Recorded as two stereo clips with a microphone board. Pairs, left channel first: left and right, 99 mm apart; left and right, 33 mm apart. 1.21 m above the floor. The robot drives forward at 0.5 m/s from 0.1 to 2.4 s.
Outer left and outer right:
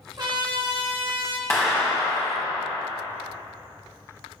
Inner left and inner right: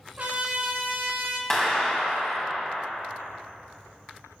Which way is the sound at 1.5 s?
20° left (ahead or behind).